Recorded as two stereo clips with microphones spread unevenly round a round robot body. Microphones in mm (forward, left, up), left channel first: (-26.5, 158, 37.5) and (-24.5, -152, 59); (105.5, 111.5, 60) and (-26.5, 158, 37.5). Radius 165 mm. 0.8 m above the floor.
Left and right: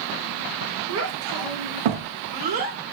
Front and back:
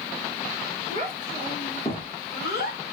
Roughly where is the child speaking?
Behind right.